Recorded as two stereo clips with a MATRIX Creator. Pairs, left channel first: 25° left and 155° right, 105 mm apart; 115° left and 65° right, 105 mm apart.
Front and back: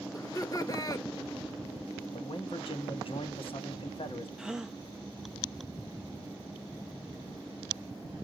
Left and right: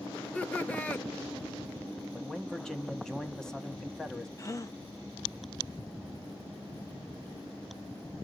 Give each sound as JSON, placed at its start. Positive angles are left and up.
{"t": 0.1, "sound": "laughter", "azimuth_deg": 45, "distance_m": 1.2}
{"t": 2.1, "sound": "a man speaking", "azimuth_deg": 30, "distance_m": 1.4}
{"t": 4.4, "sound": "a gasp", "azimuth_deg": 125, "distance_m": 0.8}